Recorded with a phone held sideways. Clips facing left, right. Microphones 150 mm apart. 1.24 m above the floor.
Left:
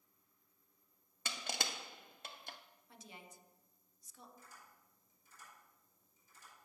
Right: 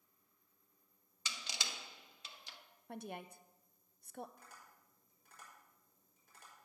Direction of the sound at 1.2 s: 55° left (ahead or behind).